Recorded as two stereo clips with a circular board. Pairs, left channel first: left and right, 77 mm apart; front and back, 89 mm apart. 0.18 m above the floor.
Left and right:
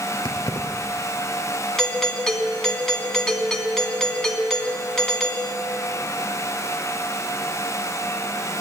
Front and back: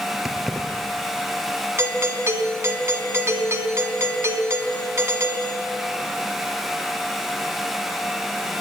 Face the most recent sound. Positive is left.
turn(degrees=165)